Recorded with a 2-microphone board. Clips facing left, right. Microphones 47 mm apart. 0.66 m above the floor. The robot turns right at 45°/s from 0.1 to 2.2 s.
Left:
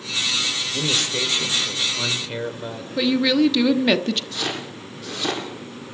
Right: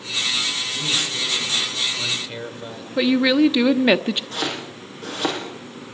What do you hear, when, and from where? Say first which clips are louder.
0.7 s a man speaking: left 3 dB; 100° left, 2.5 m; by 2.9 s 165° left, 2.5 m
3.0 s a woman speaking: right 2 dB; 15° right (ahead or behind), 0.9 m
4.3 s chopping: right 1 dB; 45° right (ahead or behind), 7 m